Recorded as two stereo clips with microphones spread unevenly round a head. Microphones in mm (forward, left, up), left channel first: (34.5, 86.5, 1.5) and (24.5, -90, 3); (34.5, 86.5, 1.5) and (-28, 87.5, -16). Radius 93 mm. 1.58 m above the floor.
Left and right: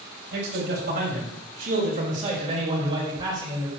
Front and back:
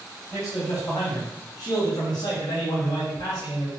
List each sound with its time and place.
0.3 s a man speaking: 65° right, 3.5 m; by 3.7 s 20° right, 2.5 m